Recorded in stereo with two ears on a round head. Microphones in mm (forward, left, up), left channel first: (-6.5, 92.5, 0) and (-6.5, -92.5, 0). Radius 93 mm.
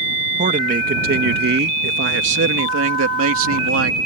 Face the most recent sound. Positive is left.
turn(degrees=-80)